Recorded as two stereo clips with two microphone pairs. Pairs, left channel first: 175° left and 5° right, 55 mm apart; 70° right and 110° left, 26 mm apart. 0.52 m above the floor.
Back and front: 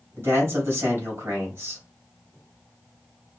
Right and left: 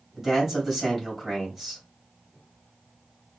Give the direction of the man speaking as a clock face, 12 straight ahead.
11 o'clock.